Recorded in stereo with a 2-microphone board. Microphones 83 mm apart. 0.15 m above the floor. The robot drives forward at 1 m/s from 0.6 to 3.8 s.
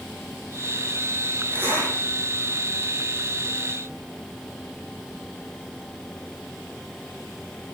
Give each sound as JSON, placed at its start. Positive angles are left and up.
{"t": 1.5, "sound": "a zipper", "side_deg": -25, "distance_m": 5.0}